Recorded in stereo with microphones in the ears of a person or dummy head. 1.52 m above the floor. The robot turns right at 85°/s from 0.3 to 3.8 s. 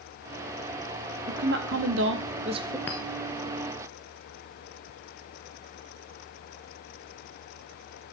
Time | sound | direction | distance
1.3 | a woman speaking | 145° right | 0.7 m
2.9 | a clink | 10° left (ahead or behind) | 0.6 m